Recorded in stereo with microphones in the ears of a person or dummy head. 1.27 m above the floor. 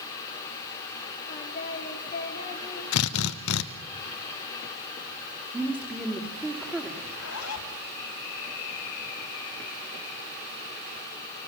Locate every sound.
1.3 s singing: 40° left (ahead or behind), 3 m
2.9 s a drill: 75° left (ahead or behind), 0.9 m
5.5 s a woman speaking: 10° right (ahead or behind), 3 m
7.0 s a zipper: 80° left, 3 m